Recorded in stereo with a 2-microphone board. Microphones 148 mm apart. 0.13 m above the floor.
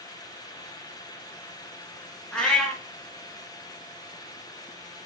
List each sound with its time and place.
2.3 s a cat meowing: 5° left (ahead or behind), 0.7 m